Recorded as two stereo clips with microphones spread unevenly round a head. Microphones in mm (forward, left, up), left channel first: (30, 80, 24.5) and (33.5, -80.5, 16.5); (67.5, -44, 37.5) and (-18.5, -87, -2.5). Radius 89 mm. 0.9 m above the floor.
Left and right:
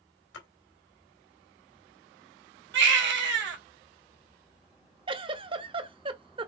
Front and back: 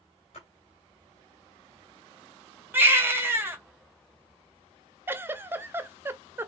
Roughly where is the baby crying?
Right.